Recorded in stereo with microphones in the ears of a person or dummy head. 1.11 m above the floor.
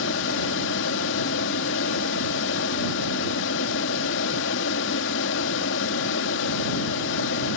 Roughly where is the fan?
Left.